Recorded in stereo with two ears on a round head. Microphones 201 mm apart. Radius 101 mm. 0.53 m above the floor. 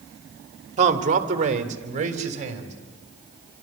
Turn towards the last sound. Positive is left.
turn(degrees=-35)  # may be behind; listen again after turning